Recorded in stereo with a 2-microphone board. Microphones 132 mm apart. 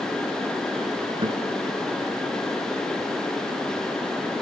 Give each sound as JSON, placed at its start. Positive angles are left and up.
{"t": 1.2, "sound": "a guitar", "side_deg": -35, "distance_m": 1.5}